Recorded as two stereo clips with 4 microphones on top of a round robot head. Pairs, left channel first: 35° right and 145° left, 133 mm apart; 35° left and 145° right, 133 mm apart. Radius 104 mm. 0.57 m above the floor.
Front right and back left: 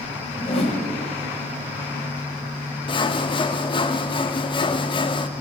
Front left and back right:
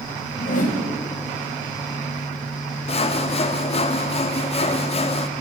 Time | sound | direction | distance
0.4 | a whoosh | 10° left | 1.4 m
2.9 | sawing | 5° left | 0.7 m